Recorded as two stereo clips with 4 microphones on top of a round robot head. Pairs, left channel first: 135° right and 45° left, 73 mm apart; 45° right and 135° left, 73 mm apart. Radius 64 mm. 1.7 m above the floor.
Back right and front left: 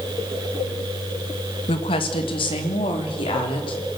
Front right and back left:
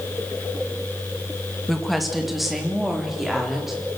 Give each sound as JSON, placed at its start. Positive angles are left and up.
{"t": 1.7, "sound": "a woman speaking", "azimuth_deg": -135, "distance_m": 1.8}